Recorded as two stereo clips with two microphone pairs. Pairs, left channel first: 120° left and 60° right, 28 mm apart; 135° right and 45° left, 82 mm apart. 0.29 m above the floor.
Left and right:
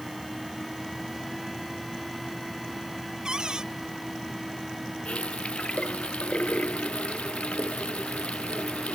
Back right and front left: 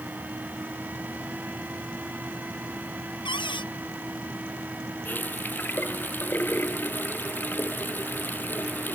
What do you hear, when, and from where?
3.2 s a cupboard door: 125° right
5.0 s a running tap: 160° left